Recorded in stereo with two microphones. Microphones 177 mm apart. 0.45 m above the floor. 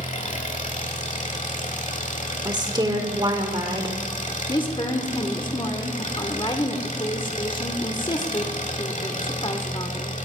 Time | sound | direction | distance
0.0 | an engine running | 45° left (ahead or behind) | 1.2 m
2.5 | a woman speaking | 25° right (ahead or behind) | 1.2 m
4.5 | a woman speaking | 30° left (ahead or behind) | 0.9 m